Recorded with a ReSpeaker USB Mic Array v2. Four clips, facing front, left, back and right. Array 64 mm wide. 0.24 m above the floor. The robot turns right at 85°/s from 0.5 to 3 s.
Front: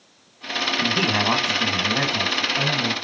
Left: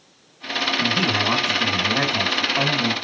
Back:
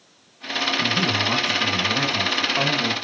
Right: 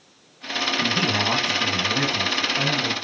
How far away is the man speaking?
About 1.7 m.